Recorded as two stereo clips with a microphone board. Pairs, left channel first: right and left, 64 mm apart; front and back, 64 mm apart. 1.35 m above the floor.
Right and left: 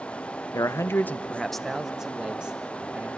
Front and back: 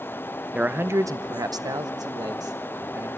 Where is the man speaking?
110° right, 0.6 m; by 3.1 s 160° left, 1.8 m.